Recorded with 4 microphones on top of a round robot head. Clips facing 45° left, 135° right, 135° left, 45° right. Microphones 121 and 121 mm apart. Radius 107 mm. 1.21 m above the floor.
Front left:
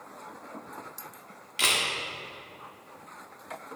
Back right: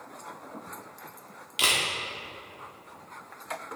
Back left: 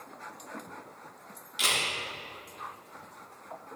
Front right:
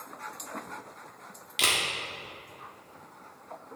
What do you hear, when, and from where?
1.6 s a camera shutter: 70° right, 0.9 m